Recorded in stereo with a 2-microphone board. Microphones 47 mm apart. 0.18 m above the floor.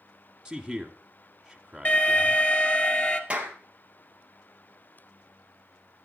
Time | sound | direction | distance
0.5 | a man speaking | 5° right (ahead or behind) | 1.4 m
1.9 | an alarm | 35° left (ahead or behind) | 2 m
3.3 | a clap | 20° right (ahead or behind) | 3 m